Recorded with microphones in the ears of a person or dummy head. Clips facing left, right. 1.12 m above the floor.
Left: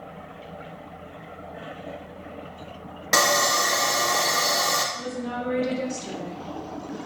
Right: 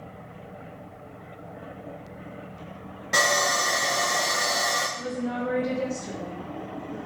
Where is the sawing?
70° left (ahead or behind), 0.6 m.